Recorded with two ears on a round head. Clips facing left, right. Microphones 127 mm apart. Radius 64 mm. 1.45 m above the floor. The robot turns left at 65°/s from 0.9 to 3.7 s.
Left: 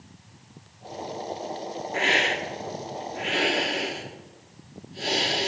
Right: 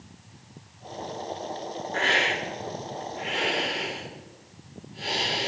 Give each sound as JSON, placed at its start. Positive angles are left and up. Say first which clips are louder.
{"t": 1.9, "sound": "a hiss", "louder": "left 1 dB", "azimuth_deg": 165, "distance_m": 2.0}